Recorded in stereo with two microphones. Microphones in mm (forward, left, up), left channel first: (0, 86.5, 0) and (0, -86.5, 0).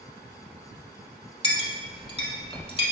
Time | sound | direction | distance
1.4 | a clink | 30° left (ahead or behind) | 0.7 m